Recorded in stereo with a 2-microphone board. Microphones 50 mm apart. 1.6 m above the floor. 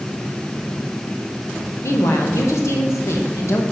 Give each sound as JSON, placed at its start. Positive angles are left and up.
{"t": 1.8, "sound": "a woman speaking", "side_deg": 75, "distance_m": 1.8}